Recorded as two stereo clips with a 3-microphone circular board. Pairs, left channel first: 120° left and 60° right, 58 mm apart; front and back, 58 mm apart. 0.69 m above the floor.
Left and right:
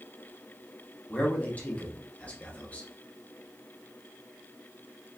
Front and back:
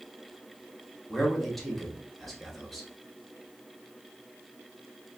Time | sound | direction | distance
1.1 | a man speaking | 85° left | 1.1 m